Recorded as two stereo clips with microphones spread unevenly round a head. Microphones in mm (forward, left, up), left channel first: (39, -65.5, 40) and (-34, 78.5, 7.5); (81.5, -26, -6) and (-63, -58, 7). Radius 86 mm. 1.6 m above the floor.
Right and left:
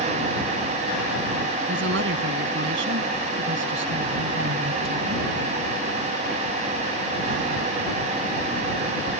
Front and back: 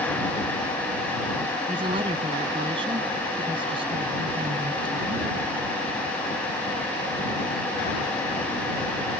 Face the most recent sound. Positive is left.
turn(degrees=130)